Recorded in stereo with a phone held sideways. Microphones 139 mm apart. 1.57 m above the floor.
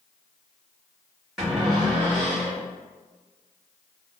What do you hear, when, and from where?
1.4 s a cupboard door: centre (ahead or behind), 1.3 m